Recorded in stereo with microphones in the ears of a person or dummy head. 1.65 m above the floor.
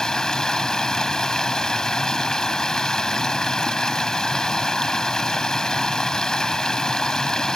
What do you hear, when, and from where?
0.0 s running water: 5° left (ahead or behind)